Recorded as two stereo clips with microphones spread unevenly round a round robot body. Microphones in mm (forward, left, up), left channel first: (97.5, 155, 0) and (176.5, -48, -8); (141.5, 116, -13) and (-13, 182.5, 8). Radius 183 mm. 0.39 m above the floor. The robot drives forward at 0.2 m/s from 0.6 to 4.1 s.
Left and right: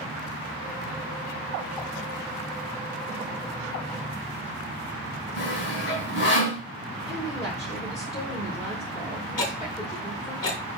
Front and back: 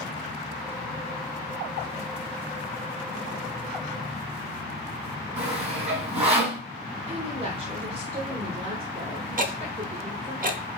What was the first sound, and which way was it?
Sawing, 105° left.